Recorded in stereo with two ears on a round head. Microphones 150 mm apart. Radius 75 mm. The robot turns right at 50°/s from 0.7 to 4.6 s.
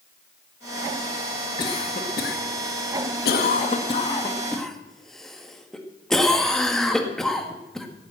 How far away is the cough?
About 1.9 m.